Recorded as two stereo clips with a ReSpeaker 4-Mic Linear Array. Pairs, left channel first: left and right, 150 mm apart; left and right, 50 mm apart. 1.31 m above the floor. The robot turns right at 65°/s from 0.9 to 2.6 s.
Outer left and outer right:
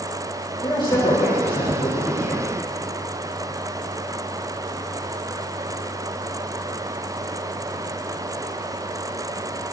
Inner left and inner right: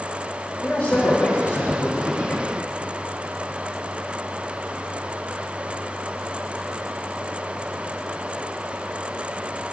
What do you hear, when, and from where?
0.6 s a man speaking: 30° left, 2.5 m; by 2.5 s 130° left, 2.5 m